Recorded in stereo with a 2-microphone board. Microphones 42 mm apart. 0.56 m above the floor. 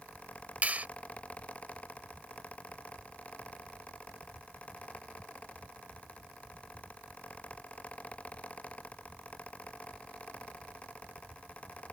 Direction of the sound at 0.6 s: 40° right (ahead or behind).